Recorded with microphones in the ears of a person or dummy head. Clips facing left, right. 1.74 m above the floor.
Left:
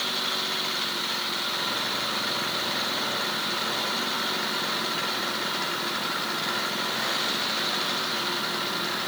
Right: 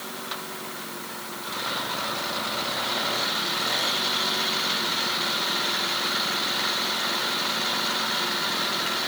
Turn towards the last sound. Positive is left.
No sound to turn to.